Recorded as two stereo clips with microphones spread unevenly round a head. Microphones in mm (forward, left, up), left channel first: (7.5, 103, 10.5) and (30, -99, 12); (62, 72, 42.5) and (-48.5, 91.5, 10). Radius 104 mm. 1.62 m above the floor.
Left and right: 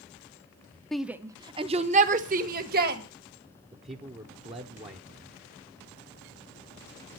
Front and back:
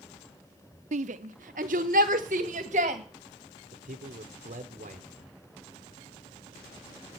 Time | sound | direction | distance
0.9 | a shout | 175° right | 0.7 m
3.7 | a man speaking | 145° right | 0.9 m